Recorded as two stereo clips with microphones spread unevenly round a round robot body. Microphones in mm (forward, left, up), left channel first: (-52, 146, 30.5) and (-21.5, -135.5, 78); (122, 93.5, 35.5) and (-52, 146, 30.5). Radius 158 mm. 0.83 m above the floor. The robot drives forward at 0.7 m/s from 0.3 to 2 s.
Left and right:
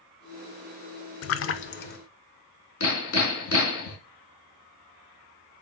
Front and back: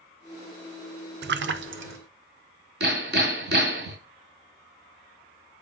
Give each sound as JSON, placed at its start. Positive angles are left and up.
{"t": 1.2, "sound": "a splash", "azimuth_deg": 135, "distance_m": 0.7}
{"t": 2.8, "sound": "hammering", "azimuth_deg": 140, "distance_m": 3.5}